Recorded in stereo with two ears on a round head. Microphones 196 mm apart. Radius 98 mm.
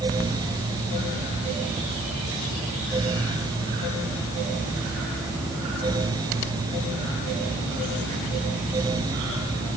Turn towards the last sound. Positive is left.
No sound to turn to.